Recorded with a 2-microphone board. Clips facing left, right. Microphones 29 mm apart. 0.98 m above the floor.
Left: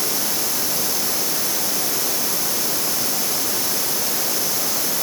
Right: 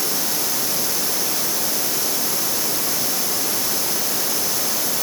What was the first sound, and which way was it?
Only background noise.